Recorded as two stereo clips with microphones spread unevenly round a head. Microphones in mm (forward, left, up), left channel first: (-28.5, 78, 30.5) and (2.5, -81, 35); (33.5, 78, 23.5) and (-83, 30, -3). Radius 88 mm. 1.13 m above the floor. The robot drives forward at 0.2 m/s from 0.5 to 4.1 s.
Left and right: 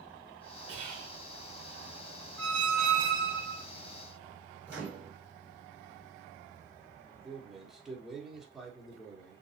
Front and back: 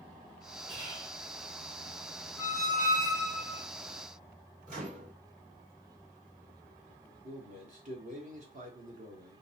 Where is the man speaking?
165° right, 1.2 m.